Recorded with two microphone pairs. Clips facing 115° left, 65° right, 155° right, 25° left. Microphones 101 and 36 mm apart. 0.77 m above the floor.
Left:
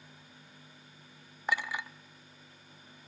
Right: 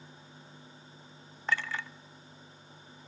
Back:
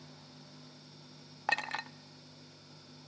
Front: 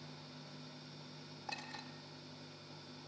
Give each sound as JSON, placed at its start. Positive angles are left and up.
{"t": 1.5, "sound": "a clink", "azimuth_deg": -170, "distance_m": 0.7}